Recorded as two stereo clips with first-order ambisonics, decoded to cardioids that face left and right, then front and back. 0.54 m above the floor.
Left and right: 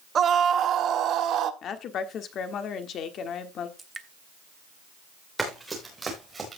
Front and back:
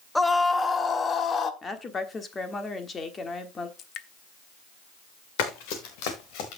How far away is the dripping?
About 1.0 m.